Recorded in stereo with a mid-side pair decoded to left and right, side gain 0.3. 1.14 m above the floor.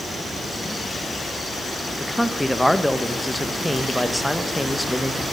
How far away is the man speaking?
About 0.9 m.